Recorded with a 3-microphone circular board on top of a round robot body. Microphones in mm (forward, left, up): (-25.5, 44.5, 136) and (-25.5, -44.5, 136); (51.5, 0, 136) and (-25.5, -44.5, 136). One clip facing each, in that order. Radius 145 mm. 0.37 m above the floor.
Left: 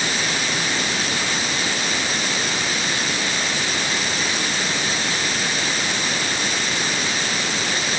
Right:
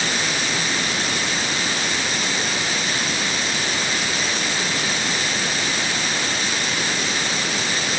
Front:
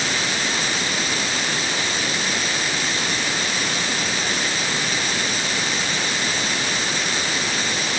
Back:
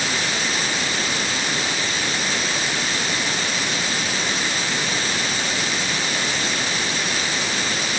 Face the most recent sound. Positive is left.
No sound to turn to.